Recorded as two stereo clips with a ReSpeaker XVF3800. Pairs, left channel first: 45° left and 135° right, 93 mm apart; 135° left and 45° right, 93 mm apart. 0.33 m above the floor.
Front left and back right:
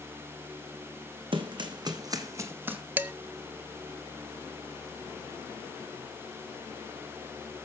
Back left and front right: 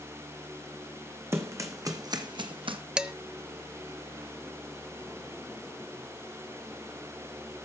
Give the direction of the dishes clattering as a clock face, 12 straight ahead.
4 o'clock.